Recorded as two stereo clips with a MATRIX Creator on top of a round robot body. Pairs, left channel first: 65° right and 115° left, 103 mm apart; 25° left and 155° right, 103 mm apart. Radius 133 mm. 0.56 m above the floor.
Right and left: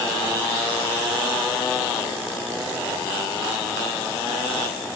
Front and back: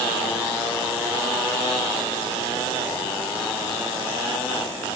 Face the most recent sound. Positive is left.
No sound to turn to.